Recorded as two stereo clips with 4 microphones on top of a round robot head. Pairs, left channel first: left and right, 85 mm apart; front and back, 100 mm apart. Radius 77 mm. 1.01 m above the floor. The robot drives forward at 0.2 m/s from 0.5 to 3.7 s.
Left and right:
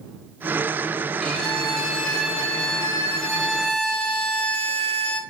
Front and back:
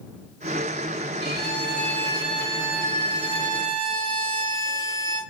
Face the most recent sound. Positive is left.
turn(degrees=175)